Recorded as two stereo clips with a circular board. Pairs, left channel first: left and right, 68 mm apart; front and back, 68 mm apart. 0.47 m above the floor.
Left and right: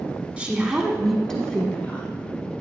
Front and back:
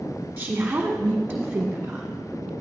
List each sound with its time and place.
0.4 s a woman speaking: 140° right, 1.3 m; by 2.1 s 130° left, 1.4 m